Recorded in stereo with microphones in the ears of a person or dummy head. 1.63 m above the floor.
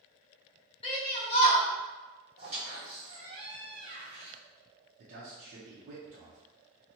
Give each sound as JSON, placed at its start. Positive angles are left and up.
{"t": 0.8, "sound": "a shout", "side_deg": 35, "distance_m": 0.8}
{"t": 2.4, "sound": "a squeak", "side_deg": -35, "distance_m": 1.4}
{"t": 5.0, "sound": "a man speaking", "side_deg": -45, "distance_m": 0.7}